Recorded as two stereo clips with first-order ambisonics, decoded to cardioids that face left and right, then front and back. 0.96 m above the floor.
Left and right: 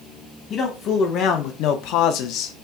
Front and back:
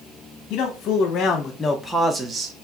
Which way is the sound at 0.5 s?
40° left.